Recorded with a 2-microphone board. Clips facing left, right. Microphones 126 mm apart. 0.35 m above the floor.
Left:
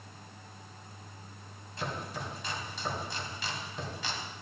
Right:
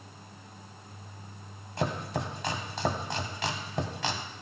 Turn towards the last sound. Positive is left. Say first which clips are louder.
# right 6 dB
turn(degrees=-70)  # may be behind; listen again after turning